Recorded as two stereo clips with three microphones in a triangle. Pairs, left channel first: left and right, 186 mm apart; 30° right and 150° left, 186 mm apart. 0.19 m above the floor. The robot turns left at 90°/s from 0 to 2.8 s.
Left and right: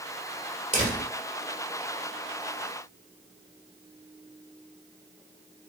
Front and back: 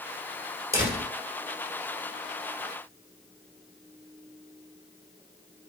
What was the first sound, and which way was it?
A door slam, 135° right.